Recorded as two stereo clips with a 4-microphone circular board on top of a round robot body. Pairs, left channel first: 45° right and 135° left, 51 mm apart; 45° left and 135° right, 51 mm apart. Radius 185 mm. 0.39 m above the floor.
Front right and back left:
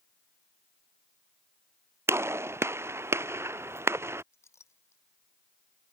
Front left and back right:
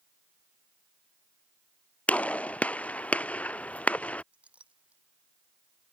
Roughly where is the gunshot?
Left.